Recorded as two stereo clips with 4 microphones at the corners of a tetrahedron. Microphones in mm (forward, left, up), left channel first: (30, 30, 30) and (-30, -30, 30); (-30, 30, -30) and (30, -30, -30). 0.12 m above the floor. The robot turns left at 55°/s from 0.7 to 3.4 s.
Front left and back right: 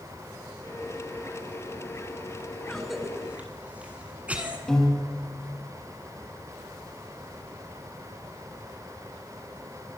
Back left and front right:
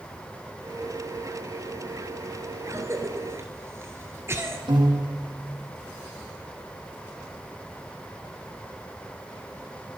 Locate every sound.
2.7 s a cough: 35° right, 1.3 m; by 4.6 s 75° right, 1.3 m
4.7 s a piano: 35° right, 4 m